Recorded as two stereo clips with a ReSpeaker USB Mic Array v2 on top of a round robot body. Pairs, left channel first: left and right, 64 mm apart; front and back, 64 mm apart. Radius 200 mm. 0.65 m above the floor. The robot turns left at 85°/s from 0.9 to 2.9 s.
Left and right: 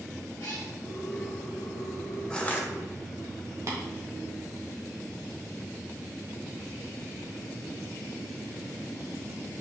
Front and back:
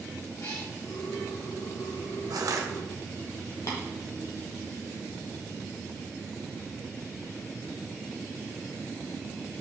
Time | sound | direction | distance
0.4 | a cat meowing | 50° left | 0.9 m
2.3 | crushing | 170° left | 1.3 m
3.7 | tapping | 45° right | 1.7 m